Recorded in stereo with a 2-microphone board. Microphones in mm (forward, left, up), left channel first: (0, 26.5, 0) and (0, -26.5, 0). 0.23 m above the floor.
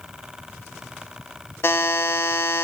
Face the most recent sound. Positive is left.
turn(degrees=50)  # may be behind; listen again after turning